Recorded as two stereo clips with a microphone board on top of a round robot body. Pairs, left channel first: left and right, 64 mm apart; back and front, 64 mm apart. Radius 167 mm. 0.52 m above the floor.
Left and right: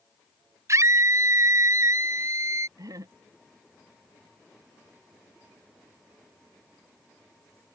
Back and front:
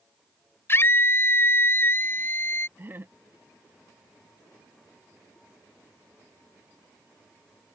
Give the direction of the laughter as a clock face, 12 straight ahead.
2 o'clock.